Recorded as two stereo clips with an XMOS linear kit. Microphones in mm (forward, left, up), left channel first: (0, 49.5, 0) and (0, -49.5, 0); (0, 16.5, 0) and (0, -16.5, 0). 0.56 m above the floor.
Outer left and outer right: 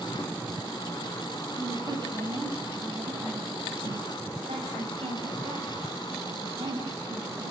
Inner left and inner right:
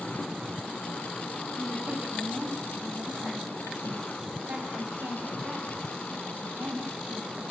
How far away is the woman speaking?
About 3.5 m.